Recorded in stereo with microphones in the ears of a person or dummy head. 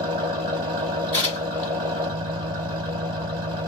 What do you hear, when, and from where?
0.0 s an engine running: 25° right (ahead or behind), 0.9 m
1.1 s tearing paper: 20° right (ahead or behind), 1.4 m